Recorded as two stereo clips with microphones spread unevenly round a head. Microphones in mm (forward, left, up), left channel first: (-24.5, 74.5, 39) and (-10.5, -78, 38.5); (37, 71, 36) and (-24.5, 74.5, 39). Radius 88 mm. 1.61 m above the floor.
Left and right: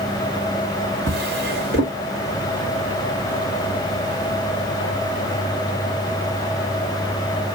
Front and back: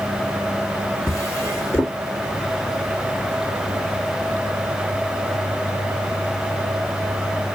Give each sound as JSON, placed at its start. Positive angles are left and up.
{"t": 1.1, "sound": "a drawer", "azimuth_deg": -95, "distance_m": 1.6}